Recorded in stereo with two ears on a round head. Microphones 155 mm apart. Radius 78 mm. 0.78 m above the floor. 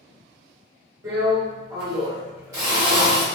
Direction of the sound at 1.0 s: 20° right (ahead or behind).